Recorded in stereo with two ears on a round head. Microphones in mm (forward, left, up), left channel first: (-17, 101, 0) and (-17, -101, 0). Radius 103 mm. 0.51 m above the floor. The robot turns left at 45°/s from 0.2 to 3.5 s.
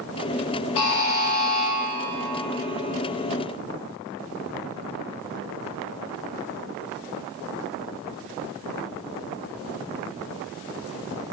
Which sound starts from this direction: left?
A buzzer, at 0.8 s.